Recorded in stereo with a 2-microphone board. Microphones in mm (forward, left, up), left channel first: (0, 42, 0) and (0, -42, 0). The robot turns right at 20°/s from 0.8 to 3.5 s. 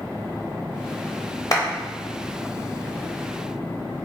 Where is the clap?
45° left (ahead or behind), 0.9 m.